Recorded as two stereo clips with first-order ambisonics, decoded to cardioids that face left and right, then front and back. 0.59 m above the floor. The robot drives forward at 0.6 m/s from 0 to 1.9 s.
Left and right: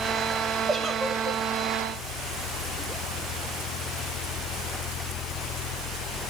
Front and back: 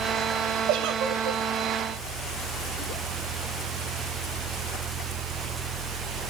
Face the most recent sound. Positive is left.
turn(degrees=-170)